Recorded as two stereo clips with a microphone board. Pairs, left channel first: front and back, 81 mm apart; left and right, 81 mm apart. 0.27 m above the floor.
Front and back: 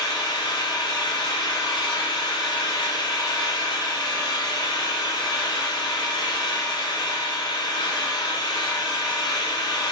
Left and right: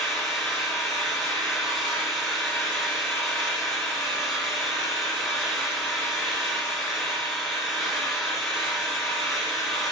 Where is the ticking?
I don't hear ticking.